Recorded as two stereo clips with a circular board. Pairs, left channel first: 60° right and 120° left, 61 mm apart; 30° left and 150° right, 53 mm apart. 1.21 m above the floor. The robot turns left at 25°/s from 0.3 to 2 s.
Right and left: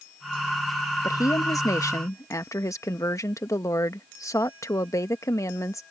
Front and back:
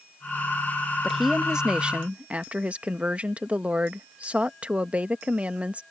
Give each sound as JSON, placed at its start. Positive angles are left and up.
{"t": 1.0, "sound": "a woman speaking", "azimuth_deg": -60}